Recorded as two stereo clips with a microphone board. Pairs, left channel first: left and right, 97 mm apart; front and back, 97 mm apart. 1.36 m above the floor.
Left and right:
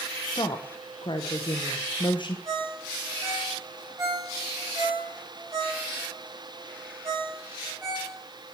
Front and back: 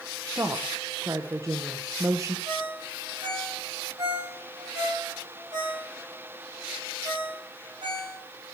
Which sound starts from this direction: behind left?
A woman speaking, at 0.3 s.